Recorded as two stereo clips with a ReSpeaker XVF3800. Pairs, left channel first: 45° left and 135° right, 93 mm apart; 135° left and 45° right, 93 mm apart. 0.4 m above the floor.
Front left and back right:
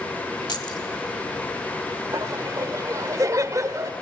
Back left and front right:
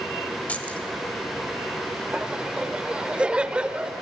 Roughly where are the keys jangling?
Ahead left.